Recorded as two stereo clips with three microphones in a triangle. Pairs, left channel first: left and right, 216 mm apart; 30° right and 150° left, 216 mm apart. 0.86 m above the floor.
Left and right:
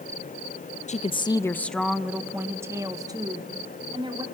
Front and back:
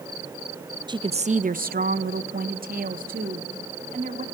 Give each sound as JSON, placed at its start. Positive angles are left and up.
{"t": 0.9, "sound": "a woman speaking", "azimuth_deg": 100, "distance_m": 0.6}